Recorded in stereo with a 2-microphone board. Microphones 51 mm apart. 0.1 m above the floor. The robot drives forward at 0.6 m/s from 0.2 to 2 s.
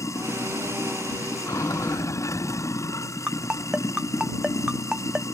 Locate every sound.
0.0 s running water: 85° left
3.3 s a ringtone: 20° right (ahead or behind)